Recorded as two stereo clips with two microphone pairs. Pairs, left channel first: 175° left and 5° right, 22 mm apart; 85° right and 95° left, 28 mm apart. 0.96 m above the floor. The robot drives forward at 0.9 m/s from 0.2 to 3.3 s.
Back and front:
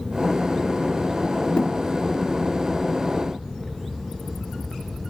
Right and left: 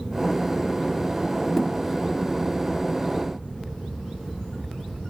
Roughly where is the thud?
Behind right.